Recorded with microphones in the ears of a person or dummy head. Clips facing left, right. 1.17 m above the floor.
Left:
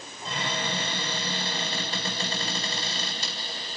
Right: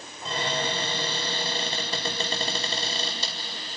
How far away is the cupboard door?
About 4 m.